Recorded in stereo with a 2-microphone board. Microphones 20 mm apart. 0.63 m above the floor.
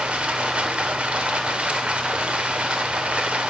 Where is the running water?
70° right (ahead or behind), 1.2 m.